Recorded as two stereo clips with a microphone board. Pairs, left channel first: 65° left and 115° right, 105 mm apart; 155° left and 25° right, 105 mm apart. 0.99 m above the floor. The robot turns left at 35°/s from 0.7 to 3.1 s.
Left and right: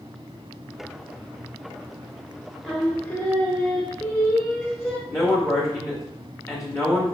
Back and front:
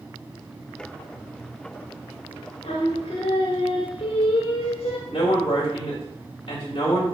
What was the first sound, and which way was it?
Singing, 150° left.